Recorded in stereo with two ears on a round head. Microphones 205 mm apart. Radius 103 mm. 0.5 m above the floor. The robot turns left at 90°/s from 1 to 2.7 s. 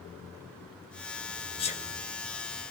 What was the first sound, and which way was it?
A sneeze, 25° left (ahead or behind).